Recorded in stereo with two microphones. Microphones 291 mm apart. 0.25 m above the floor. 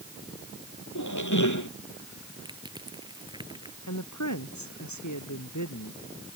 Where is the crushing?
15° right (ahead or behind).